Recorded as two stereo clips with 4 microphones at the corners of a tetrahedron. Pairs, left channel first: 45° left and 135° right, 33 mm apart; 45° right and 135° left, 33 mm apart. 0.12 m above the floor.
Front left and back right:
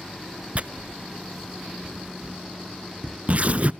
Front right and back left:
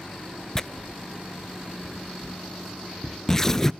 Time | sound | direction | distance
0.6 | tearing paper | 110° right | 0.6 m